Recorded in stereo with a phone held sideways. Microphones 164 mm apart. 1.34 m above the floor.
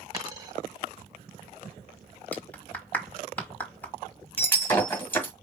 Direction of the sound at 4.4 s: 10° left (ahead or behind).